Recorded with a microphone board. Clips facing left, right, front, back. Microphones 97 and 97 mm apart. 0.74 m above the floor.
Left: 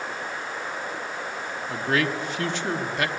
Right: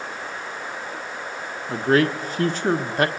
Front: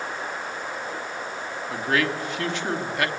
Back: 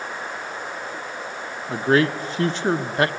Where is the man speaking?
130° right, 1.2 m.